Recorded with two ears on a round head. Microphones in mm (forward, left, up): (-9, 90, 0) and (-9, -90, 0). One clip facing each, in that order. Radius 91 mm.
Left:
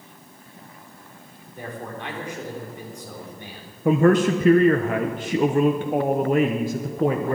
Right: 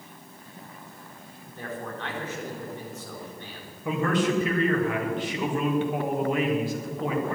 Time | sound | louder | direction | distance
1.6 | a man speaking | left 1 dB | 10° left (ahead or behind) | 3.5 m
3.9 | a man speaking | left 8 dB | 40° left (ahead or behind) | 1.0 m